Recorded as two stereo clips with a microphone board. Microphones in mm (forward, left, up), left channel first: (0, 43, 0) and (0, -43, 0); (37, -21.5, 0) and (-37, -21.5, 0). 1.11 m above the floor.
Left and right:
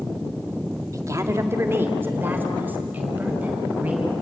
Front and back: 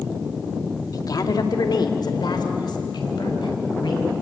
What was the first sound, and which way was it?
A woman speaking, 40° right.